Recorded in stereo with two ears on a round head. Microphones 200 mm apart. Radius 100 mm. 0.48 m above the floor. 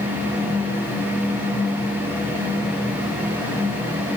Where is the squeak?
No squeak in this recording.